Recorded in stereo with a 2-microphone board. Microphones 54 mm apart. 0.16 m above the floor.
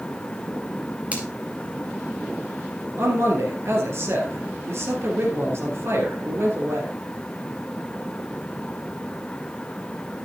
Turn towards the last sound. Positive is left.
turn(degrees=-50)  # may be behind; listen again after turning